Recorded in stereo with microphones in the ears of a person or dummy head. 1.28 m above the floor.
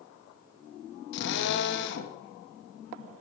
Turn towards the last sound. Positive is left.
turn(degrees=70)  # may be behind; listen again after turning